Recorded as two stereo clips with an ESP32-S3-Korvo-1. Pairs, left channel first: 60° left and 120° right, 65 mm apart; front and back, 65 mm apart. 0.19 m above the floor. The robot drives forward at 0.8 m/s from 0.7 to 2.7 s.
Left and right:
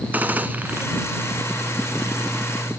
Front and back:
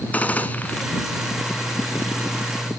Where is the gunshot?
60° right, 1.0 m; by 0.8 s 70° right, 1.0 m.